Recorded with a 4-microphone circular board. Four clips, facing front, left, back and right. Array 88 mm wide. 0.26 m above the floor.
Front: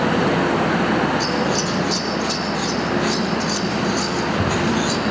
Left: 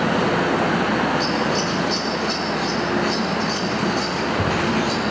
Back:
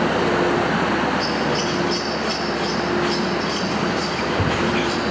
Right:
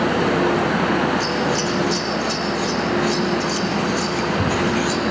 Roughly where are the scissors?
Behind.